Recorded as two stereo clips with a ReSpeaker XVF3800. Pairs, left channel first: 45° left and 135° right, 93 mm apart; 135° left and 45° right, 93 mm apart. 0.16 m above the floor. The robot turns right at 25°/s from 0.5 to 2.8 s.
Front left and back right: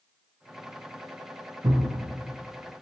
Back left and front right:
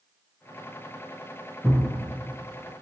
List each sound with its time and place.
1.6 s a thud: 140° right, 0.9 m; by 1.9 s 135° right, 0.9 m